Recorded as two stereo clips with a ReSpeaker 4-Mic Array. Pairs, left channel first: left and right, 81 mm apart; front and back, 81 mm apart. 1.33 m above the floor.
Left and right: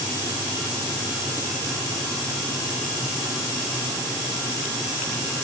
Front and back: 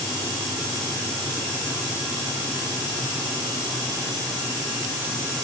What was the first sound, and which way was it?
Only background noise.